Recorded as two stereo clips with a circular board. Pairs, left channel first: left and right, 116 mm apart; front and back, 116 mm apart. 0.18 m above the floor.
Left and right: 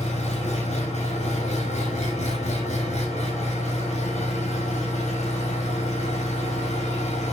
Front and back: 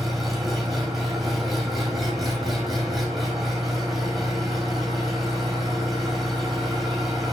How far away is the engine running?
About 7.5 m.